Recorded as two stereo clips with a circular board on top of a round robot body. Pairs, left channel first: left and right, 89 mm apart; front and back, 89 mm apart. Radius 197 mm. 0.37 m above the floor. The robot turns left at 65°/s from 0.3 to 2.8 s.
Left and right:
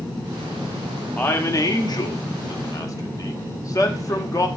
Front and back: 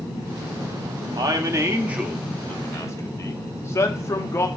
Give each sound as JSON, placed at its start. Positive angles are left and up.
{"t": 1.2, "sound": "a man speaking", "azimuth_deg": 155, "distance_m": 1.9}